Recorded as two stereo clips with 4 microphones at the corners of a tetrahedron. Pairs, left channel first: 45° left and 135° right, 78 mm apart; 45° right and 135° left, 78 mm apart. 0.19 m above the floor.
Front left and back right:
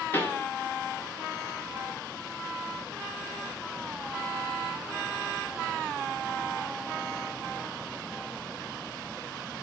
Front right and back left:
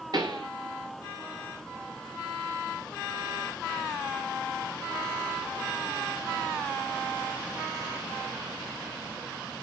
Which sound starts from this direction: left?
A pop, at 0.1 s.